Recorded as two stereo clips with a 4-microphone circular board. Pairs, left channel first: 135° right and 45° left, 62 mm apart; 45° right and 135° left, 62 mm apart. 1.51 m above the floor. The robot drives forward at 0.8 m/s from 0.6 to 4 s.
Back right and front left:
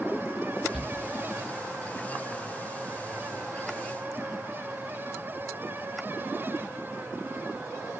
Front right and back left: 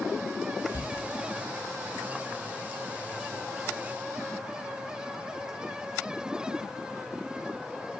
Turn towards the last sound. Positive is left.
turn(degrees=-100)